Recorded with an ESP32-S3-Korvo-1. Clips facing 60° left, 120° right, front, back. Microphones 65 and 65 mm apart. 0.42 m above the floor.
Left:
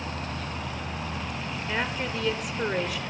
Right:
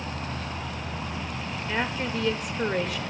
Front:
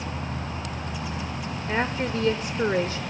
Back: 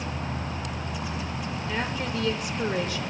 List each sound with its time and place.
1.7 s a woman speaking: 30° right, 0.9 m